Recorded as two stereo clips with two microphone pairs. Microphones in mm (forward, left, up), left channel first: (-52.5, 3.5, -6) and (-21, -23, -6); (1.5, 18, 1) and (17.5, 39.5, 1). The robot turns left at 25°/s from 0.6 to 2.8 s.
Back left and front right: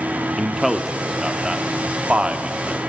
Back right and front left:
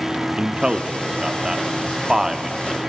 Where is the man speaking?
45° left, 0.9 m; by 2.8 s 10° right, 0.9 m.